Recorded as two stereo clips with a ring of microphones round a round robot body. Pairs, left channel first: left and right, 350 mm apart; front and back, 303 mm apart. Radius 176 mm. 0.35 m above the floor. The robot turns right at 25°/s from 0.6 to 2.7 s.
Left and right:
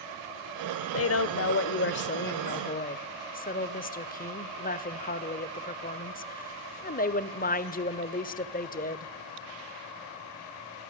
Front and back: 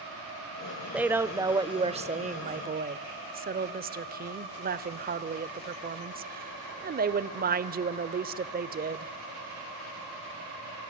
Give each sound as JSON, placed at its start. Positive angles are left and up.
{"t": 0.9, "sound": "a woman speaking", "azimuth_deg": 95, "distance_m": 1.0}